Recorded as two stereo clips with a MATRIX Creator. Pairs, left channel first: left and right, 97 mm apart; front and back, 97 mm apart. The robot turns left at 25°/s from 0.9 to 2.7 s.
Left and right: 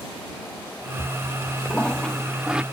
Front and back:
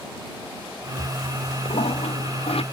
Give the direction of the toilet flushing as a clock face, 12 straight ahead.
11 o'clock.